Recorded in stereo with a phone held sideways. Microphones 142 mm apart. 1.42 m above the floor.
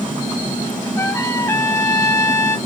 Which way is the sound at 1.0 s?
20° left (ahead or behind).